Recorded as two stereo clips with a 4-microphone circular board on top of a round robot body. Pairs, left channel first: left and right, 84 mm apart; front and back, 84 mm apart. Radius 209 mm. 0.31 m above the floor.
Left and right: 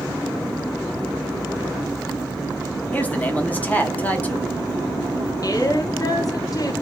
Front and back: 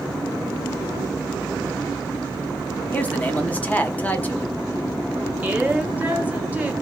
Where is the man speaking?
45° left, 1.2 m.